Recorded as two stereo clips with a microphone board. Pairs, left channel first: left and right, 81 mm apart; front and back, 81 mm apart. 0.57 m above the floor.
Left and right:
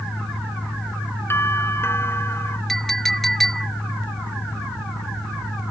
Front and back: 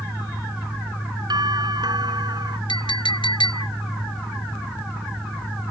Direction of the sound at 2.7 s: 5° left.